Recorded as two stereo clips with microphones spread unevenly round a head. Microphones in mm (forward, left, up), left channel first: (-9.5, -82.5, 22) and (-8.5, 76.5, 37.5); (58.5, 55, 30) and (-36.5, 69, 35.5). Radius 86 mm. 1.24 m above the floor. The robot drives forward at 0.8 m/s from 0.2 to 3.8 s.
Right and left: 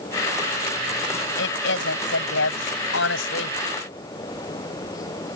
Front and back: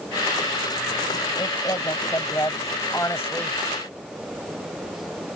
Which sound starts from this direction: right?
A woman speaking, at 1.4 s.